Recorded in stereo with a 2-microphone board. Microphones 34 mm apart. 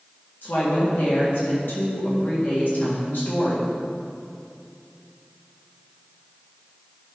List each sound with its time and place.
0.4 s a woman speaking: 65° left (ahead or behind), 2.0 m